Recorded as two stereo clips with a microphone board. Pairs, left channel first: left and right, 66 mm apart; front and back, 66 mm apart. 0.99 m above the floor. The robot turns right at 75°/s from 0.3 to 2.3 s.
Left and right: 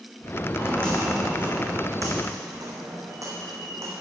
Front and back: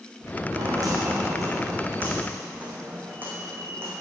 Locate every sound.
0.5 s footsteps: 145° left, 3.5 m; by 3.9 s 135° right, 3 m